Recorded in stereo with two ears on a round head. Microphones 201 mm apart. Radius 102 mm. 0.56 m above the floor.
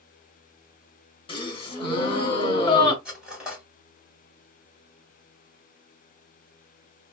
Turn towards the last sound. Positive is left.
turn(degrees=-5)  # may be behind; listen again after turning